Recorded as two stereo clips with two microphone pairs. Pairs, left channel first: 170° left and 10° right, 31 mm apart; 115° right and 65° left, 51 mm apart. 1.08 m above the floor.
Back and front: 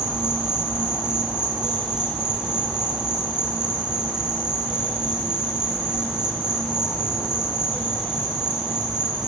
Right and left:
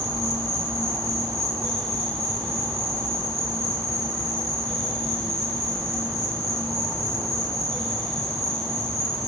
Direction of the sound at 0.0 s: 60° left.